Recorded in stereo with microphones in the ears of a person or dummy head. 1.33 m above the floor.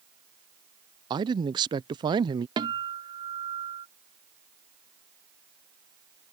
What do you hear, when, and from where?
1.1 s a man speaking: 20° right (ahead or behind)
2.6 s a guitar: 20° right (ahead or behind)